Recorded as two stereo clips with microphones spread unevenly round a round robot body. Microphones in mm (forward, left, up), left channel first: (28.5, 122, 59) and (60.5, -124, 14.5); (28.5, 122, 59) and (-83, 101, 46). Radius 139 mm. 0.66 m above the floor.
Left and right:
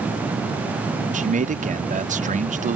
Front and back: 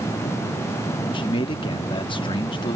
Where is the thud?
No thud in this recording.